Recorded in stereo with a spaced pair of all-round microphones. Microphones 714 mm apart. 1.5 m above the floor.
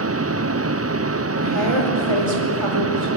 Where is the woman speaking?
40° right (ahead or behind), 5 m.